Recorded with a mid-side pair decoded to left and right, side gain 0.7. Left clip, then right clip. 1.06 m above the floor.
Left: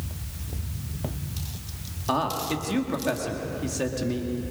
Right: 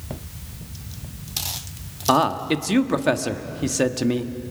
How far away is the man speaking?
About 1.6 m.